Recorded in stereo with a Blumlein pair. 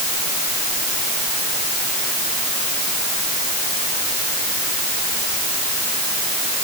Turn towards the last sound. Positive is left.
No sound to turn to.